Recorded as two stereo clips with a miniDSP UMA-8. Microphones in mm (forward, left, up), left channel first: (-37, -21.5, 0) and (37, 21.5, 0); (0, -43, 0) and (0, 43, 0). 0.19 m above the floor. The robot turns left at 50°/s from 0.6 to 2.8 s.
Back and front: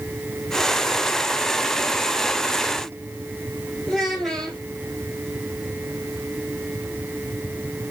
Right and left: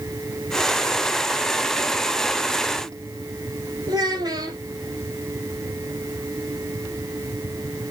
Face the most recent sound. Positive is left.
turn(degrees=125)